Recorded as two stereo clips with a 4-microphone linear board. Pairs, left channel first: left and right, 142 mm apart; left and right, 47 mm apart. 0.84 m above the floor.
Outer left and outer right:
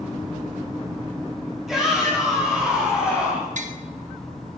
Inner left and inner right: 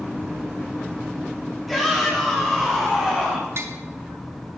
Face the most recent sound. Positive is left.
turn(degrees=-60)  # may be behind; listen again after turning